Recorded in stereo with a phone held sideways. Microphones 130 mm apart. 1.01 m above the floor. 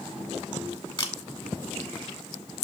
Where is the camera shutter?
40° left (ahead or behind), 1.7 m.